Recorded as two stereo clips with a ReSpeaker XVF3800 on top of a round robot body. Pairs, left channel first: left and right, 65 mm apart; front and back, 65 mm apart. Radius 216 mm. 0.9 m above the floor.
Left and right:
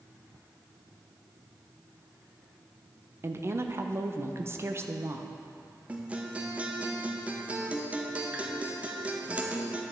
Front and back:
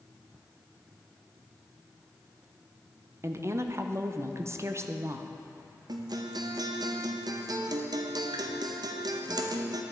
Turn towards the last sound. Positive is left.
turn(degrees=-160)